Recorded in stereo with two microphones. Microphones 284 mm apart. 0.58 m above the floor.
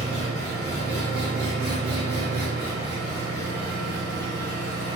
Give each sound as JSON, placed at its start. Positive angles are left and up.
{"t": 0.0, "sound": "an engine running", "side_deg": -35, "distance_m": 1.4}